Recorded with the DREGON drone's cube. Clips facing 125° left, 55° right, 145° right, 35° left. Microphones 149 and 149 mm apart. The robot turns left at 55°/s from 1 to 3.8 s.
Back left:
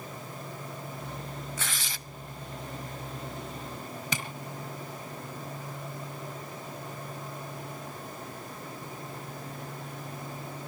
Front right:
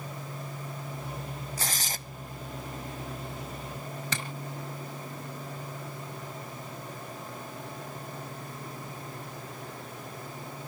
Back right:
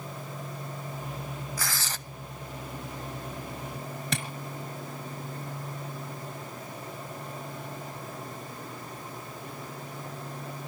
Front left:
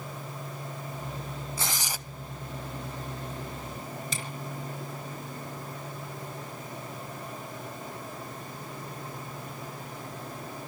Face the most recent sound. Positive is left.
turn(degrees=-160)